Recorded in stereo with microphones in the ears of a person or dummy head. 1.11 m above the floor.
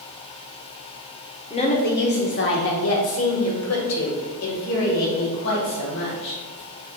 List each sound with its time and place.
1.5 s a woman speaking: 30° left (ahead or behind), 1.0 m; by 6.3 s 65° left (ahead or behind), 4 m